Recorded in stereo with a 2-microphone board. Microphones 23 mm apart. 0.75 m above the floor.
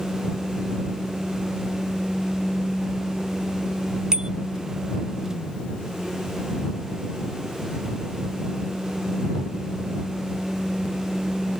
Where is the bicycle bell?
30° right (ahead or behind).